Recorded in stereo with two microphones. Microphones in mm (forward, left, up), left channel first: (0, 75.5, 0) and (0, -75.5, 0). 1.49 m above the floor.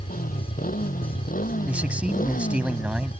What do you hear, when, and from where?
0.0 s a motorcycle: 65° left (ahead or behind)
1.7 s a man speaking: 10° right (ahead or behind)